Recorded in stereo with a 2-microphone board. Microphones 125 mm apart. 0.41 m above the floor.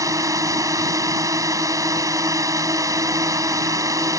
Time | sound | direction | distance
0.0 | a drone | 25° right (ahead or behind) | ?